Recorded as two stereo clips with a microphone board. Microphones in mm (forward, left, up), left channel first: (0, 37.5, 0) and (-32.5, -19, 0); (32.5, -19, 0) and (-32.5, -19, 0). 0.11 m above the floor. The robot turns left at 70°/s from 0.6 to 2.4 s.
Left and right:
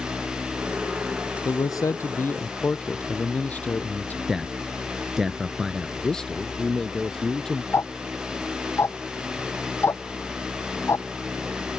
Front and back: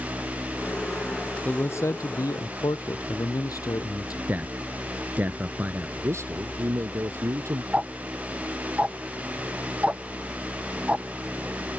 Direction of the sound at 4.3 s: 160° left.